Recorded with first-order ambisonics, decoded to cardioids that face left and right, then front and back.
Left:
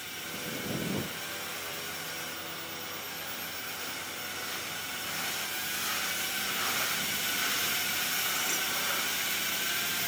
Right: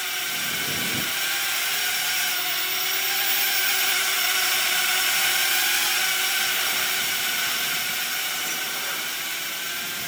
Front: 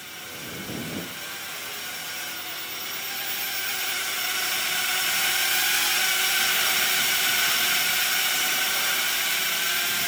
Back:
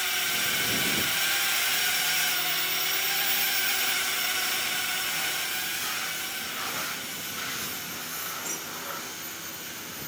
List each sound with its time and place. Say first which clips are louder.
0.0 s a drone: right 11 dB, back 10 dB; 135° right; by 10.1 s 5° right